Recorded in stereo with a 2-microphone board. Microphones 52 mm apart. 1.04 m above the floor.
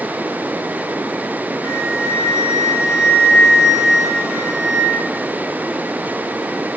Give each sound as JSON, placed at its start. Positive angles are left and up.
{"t": 1.6, "sound": "a flute", "side_deg": 65, "distance_m": 3.5}